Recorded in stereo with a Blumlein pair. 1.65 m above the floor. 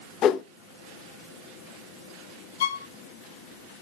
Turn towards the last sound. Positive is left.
turn(degrees=60)